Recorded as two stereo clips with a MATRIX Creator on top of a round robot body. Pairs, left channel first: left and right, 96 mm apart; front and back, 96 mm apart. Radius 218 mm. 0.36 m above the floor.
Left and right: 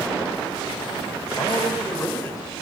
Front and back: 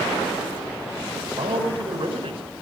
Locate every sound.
1.4 s a man speaking: 150° left, 4.5 m